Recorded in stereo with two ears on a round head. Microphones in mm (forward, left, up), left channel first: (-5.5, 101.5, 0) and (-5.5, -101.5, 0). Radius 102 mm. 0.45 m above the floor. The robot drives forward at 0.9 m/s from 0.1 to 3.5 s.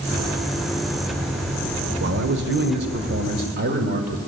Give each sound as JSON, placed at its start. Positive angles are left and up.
{"t": 2.0, "sound": "a man speaking", "side_deg": -50, "distance_m": 1.8}